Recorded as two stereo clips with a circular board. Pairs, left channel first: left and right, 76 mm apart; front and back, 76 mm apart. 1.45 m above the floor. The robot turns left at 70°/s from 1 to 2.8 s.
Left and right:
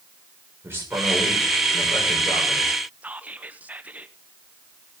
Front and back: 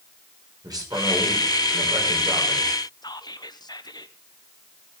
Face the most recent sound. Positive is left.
turn(degrees=-20)